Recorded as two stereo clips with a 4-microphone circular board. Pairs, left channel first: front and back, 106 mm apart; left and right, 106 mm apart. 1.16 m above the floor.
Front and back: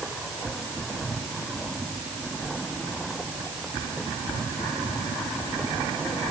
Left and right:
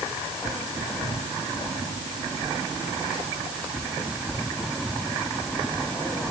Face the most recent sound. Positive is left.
No sound to turn to.